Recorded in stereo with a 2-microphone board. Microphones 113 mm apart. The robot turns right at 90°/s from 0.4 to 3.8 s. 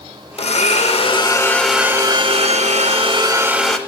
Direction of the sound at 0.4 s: 65° left.